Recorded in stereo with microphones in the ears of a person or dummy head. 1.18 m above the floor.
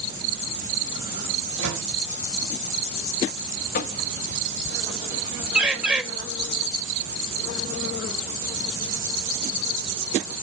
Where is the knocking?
55° left (ahead or behind), 1.0 m.